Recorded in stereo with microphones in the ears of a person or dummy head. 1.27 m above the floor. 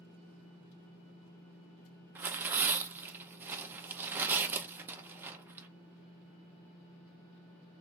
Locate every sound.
2.1 s tearing paper: 10° right (ahead or behind), 0.6 m